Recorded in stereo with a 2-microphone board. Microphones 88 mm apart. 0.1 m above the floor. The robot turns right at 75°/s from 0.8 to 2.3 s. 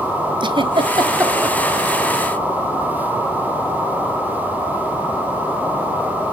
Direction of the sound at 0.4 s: 65° right (ahead or behind).